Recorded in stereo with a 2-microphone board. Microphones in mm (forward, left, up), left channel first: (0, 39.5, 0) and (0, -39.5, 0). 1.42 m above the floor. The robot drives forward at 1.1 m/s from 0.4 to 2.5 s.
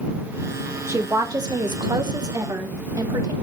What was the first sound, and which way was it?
A woman speaking, 35° right (ahead or behind).